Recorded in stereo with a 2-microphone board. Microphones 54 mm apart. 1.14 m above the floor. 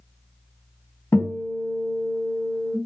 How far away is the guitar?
About 2.0 m.